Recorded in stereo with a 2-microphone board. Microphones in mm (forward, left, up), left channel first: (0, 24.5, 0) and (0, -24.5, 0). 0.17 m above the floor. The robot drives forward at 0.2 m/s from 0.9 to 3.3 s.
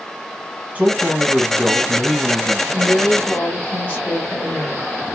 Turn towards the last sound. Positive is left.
turn(degrees=35)  # may be behind; listen again after turning